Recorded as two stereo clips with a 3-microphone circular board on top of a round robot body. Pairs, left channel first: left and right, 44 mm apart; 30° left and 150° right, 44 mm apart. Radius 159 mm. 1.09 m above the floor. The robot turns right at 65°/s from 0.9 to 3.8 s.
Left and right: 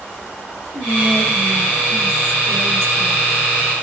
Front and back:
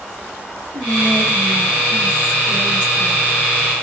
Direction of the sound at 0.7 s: 145° left.